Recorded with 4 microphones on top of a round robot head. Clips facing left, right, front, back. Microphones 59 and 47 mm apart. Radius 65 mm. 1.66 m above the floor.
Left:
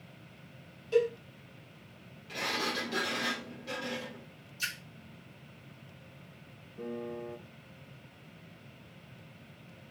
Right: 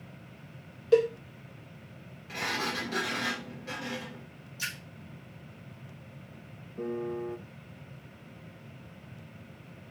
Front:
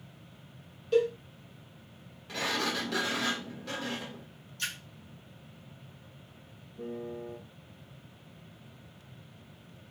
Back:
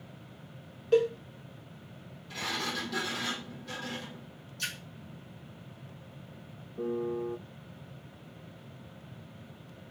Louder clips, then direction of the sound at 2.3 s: Right 1 dB, front 3 dB; 25° right.